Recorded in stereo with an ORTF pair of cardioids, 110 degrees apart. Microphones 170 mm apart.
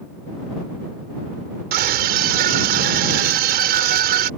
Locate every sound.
1.7 s a scream: 70° right